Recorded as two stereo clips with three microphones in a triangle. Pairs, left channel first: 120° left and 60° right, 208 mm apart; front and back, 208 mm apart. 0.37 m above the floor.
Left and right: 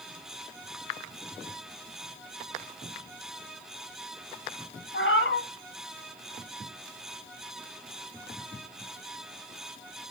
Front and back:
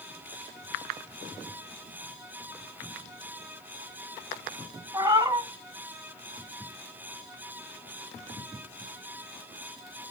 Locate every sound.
4.9 s a cat meowing: 105° left, 0.9 m